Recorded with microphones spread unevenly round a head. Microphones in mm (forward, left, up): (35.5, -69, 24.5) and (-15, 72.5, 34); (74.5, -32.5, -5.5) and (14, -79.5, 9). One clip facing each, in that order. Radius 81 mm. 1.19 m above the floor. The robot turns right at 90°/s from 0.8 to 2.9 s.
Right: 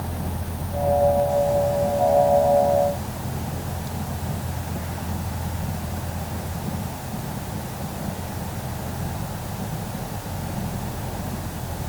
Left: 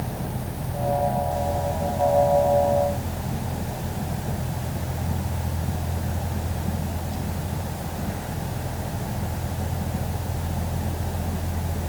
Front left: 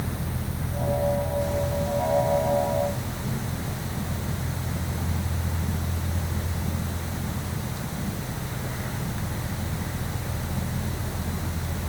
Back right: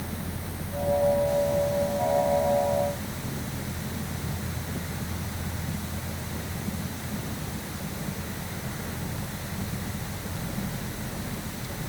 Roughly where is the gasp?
I don't hear a gasp.